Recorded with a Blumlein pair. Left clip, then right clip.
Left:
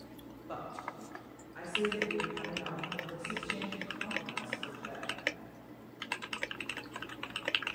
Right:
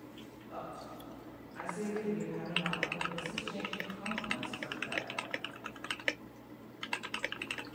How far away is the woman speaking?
About 1.7 m.